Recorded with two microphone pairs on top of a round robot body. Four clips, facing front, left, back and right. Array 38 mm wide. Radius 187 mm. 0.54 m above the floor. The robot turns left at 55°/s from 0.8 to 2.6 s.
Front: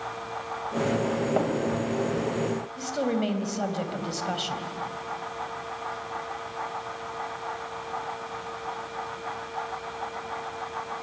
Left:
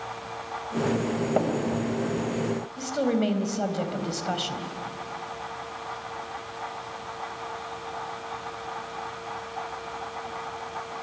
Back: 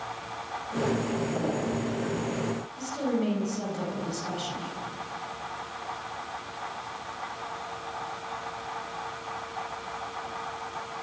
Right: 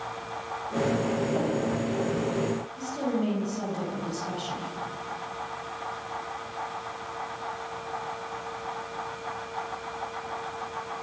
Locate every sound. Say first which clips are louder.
1.4 s tapping: left 3 dB, front 7 dB; 55° left, 4 m; by 1.5 s 45° left, 4 m
2.8 s a woman speaking: left 6 dB, front 1 dB; 55° left, 4 m